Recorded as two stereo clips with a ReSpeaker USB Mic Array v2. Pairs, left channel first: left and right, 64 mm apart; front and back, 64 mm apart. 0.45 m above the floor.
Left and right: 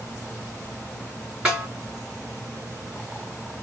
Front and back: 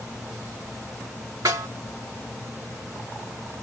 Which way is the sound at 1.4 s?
165° right.